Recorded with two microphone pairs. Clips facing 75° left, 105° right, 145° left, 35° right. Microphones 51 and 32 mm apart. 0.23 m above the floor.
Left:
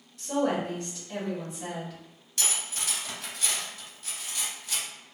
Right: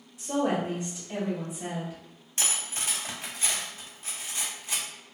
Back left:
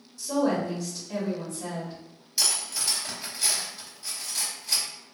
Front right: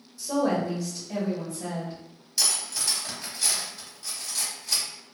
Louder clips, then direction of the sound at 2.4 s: Even, even; 135° right.